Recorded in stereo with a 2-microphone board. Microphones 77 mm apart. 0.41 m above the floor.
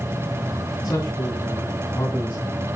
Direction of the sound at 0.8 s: 45° left (ahead or behind).